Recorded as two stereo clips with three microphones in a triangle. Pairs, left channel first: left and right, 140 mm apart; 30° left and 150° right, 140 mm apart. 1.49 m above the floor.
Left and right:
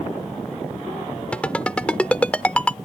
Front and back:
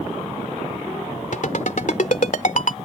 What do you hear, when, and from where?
1.3 s a ringtone: 10° left